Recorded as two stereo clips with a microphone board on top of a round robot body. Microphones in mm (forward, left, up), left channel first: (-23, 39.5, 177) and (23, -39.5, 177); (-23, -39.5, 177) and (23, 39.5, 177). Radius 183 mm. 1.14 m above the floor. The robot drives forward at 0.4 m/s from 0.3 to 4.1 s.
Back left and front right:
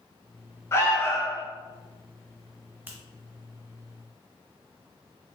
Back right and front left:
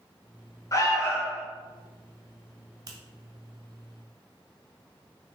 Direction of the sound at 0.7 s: Straight behind.